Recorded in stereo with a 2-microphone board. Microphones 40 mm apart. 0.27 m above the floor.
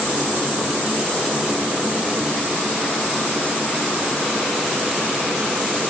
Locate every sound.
Only background noise.